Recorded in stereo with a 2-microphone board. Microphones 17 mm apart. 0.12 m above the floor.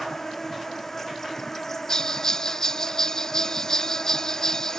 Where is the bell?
35° left (ahead or behind).